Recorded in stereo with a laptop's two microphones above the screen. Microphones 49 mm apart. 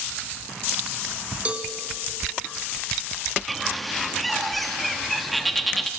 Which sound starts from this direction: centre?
A bird, at 3.5 s.